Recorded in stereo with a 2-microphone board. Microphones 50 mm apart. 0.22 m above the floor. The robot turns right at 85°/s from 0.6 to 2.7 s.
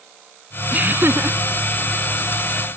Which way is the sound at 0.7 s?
145° right.